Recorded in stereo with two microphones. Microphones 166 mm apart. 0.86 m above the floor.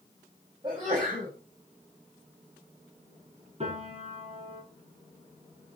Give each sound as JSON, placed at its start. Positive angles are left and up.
{"t": 0.6, "sound": "a sneeze", "side_deg": -30, "distance_m": 6.0}
{"t": 3.6, "sound": "a piano", "side_deg": -40, "distance_m": 8.0}